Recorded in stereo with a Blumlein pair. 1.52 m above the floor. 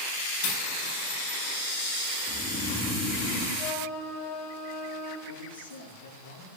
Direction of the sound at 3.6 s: 30° left.